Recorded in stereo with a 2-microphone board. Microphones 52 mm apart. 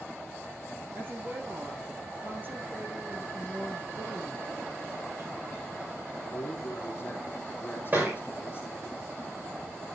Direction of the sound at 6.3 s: 45° left (ahead or behind).